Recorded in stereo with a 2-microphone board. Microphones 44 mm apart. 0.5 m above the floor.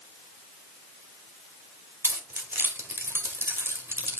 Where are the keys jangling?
60° right (ahead or behind), 1.6 m.